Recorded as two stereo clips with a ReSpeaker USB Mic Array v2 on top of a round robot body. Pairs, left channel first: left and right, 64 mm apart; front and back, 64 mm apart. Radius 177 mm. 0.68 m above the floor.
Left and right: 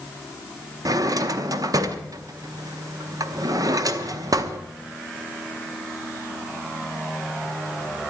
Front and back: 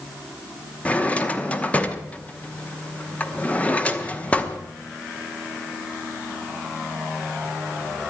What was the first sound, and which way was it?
A drawer, 70° right.